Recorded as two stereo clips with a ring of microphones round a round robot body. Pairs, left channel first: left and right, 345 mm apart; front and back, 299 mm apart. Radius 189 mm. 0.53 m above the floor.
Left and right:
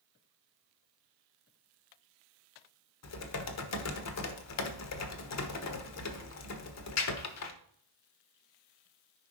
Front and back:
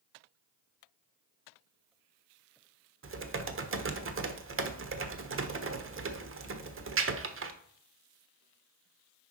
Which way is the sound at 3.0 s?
135° left.